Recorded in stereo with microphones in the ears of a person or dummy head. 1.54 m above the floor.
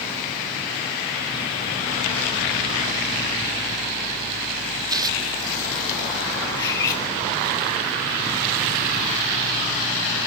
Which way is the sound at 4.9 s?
25° right (ahead or behind).